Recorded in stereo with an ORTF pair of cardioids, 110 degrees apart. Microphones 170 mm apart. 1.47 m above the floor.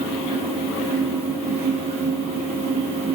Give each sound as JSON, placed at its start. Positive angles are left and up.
{"t": 0.0, "sound": "a fan", "azimuth_deg": -40, "distance_m": 0.8}